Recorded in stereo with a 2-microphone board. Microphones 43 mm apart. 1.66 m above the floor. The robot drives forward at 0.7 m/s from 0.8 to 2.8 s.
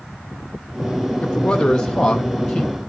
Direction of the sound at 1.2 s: 25° left (ahead or behind).